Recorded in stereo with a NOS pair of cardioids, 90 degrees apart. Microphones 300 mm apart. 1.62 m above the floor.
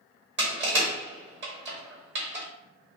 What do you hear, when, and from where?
0.4 s crushing: 40° right, 1.2 m